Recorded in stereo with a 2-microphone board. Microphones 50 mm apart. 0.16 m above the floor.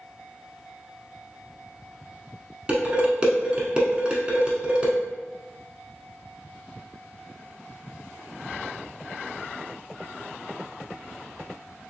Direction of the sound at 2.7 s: 20° right (ahead or behind).